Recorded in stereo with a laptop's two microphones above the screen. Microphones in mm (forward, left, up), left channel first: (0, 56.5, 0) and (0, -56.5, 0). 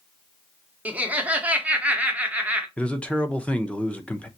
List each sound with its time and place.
0.8 s laughter: 15° right (ahead or behind), 0.9 m
2.8 s a man speaking: 10° left (ahead or behind), 0.6 m